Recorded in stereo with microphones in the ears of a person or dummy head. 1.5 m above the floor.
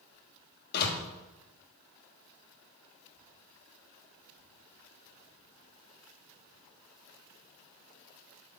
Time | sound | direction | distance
0.7 | a door slam | 60° left (ahead or behind) | 1.4 m